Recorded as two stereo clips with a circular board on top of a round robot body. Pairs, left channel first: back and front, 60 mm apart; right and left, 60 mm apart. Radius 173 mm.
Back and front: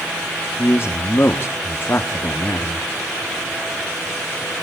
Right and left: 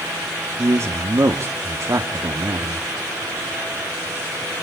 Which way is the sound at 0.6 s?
125° left.